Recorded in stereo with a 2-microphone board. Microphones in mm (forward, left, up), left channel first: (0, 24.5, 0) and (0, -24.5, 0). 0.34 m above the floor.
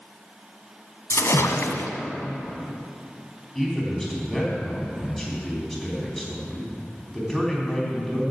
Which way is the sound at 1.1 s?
80° left.